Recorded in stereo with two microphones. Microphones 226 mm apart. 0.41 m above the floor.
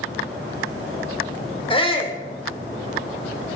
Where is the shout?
25° left (ahead or behind), 0.9 m.